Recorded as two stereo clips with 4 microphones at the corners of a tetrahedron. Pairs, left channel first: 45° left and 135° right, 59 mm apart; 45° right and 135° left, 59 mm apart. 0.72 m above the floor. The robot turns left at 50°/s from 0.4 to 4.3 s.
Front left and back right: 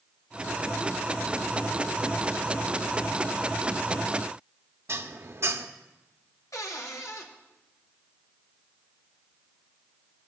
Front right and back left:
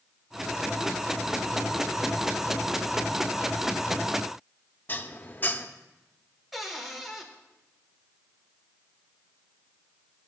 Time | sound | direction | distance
4.9 | dishes clattering | 100° right | 0.6 m
6.5 | a cupboard door | 50° left | 1.3 m